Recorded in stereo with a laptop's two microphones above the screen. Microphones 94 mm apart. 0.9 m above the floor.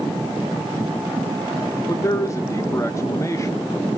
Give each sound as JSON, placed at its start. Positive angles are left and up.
{"t": 1.9, "sound": "a man speaking", "side_deg": 30, "distance_m": 0.6}